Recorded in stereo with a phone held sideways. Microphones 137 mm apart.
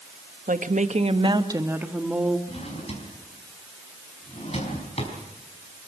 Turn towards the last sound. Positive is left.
turn(degrees=50)  # may be behind; listen again after turning